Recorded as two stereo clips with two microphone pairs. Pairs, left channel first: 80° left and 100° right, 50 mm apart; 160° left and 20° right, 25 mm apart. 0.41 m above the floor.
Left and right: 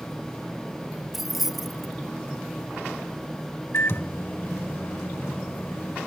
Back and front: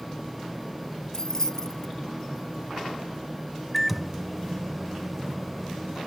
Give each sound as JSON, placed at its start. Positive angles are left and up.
{"t": 1.1, "sound": "keys jangling", "azimuth_deg": 180}
{"t": 3.7, "sound": "a microwave", "azimuth_deg": 65}